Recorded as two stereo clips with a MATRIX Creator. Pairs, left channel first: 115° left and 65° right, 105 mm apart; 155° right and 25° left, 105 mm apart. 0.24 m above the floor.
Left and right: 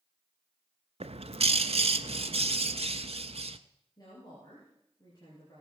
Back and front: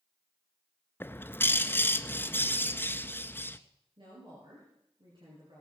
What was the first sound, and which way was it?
A bird, 90° right.